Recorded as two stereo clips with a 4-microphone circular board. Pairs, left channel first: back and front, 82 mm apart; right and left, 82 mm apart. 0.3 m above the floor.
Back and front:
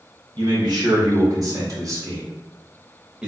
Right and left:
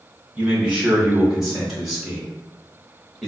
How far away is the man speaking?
About 1.9 m.